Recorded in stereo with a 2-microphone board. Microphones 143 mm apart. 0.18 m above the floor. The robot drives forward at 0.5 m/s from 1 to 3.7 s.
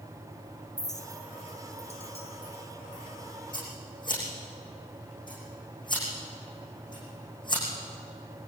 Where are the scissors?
30° left (ahead or behind), 8.5 m.